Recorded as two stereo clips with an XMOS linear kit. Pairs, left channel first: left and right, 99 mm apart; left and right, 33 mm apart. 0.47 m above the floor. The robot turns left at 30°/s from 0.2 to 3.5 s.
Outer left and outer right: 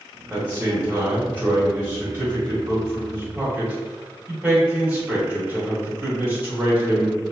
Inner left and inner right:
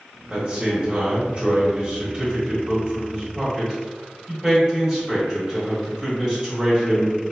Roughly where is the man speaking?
Centre.